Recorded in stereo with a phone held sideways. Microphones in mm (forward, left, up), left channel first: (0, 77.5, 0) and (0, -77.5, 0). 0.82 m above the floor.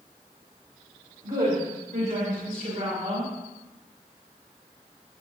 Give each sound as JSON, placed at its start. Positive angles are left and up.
{"t": 1.2, "sound": "a woman speaking", "side_deg": -80, "distance_m": 5.0}